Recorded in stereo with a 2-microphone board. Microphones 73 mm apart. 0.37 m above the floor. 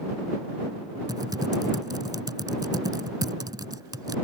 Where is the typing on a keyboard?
75° right (ahead or behind).